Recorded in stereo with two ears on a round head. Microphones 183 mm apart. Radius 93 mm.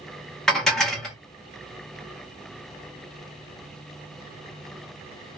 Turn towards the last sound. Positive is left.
turn(degrees=5)  # may be behind; listen again after turning